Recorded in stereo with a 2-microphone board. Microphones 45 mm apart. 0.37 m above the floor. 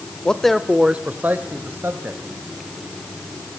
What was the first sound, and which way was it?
A man speaking, 20° left (ahead or behind).